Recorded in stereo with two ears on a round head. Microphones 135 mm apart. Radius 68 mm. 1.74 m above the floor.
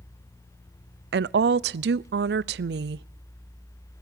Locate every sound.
1.1 s a woman speaking: 75° right (ahead or behind), 0.5 m